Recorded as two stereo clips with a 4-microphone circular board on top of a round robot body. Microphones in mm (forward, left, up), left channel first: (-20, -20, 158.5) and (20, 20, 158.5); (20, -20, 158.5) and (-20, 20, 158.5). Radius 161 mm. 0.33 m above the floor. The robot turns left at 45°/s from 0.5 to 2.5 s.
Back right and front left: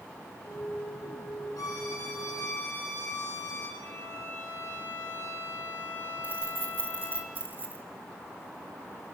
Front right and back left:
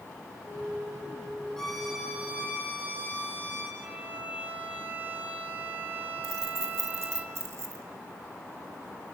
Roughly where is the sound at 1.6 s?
Behind right.